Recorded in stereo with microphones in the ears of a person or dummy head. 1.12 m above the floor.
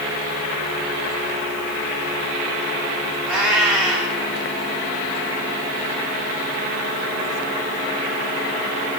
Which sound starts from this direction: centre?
A cat meowing, at 3.2 s.